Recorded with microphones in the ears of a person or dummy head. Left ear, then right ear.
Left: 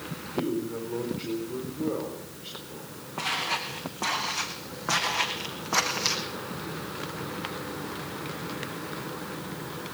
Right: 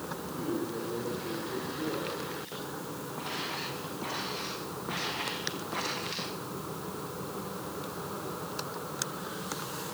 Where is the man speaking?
50° left (ahead or behind), 5 m.